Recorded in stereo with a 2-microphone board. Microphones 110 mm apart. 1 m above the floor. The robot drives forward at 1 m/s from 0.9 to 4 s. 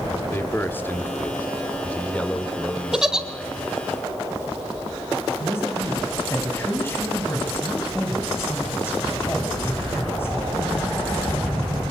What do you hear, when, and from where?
0.3 s a man speaking: 20° left (ahead or behind), 2.5 m; by 3.6 s 10° left (ahead or behind), 5 m
2.9 s a giggle: 5° right (ahead or behind), 2 m
5.4 s a man speaking: 20° left (ahead or behind), 7.5 m